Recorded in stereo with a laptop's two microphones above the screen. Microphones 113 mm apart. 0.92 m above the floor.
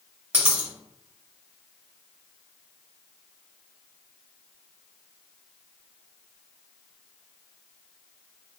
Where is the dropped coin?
20° right (ahead or behind), 1.4 m.